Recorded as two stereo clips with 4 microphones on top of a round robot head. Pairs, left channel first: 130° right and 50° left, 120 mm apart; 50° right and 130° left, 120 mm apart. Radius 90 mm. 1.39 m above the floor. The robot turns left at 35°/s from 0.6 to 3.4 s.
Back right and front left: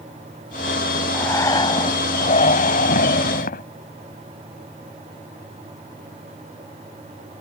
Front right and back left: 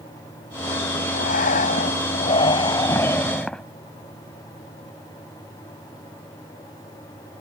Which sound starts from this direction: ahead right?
Breathing, at 1.1 s.